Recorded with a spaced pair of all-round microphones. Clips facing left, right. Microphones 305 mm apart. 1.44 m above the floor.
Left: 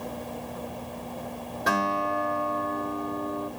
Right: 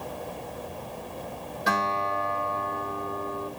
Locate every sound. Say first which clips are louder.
1.7 s a guitar: left 3 dB; 60° left (ahead or behind), 7 m